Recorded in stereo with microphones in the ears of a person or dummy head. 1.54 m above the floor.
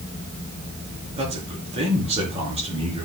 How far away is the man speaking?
About 4.5 m.